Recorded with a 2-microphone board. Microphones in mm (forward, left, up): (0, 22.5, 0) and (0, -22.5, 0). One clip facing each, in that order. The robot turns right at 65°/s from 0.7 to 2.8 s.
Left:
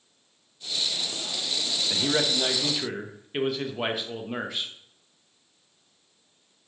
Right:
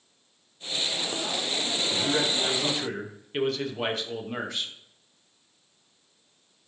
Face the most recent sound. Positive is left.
turn(degrees=170)